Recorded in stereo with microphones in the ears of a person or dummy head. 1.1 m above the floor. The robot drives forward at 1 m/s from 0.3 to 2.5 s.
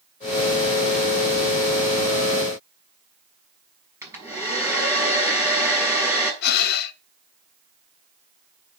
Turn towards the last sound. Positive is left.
turn(degrees=65)  # may be behind; listen again after turning